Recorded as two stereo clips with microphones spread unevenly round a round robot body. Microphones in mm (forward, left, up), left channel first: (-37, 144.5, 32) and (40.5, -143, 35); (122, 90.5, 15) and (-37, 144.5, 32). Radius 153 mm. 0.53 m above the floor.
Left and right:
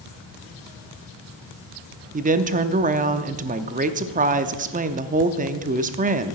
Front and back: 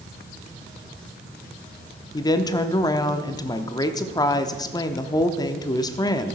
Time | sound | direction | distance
2.1 | a woman speaking | 40° right | 0.7 m